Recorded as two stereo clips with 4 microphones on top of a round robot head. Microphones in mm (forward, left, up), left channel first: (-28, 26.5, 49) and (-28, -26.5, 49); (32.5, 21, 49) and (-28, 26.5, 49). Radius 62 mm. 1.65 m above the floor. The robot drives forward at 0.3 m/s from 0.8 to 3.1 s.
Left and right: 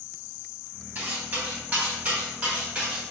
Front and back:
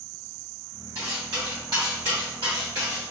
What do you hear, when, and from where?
0.9 s cutlery clinking: 135° right, 1.2 m; by 3.1 s 155° right, 1.7 m